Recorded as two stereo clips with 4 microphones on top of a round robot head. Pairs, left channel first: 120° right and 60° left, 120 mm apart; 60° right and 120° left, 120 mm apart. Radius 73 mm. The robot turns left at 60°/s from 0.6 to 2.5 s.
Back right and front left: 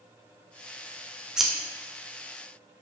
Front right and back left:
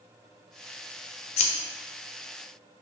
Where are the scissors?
25° right, 0.5 m; by 1.5 s 35° right, 0.5 m.